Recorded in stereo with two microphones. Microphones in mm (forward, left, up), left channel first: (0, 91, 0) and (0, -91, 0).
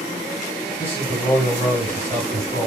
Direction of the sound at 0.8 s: 15° left (ahead or behind).